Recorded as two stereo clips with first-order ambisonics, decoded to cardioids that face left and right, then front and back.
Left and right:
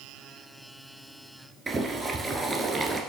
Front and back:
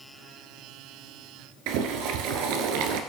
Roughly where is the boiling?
Behind.